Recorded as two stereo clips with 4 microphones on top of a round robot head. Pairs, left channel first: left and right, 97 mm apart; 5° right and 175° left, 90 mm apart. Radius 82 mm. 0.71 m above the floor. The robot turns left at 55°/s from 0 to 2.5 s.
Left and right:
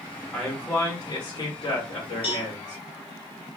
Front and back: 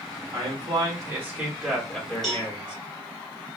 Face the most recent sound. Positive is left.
turn(degrees=70)